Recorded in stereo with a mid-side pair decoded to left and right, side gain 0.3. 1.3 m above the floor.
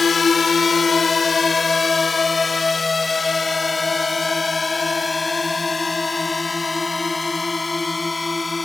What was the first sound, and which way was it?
A drone, 50° left.